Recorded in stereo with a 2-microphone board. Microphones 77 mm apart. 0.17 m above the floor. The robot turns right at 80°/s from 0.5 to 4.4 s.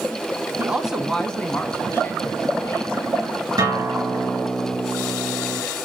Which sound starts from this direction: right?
A guitar, at 3.6 s.